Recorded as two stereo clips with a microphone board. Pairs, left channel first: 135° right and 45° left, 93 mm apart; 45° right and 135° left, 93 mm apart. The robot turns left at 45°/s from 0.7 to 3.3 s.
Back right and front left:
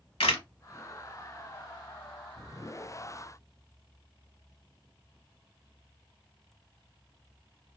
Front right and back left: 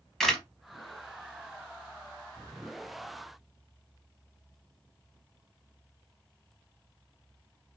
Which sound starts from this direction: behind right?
A camera shutter, at 0.2 s.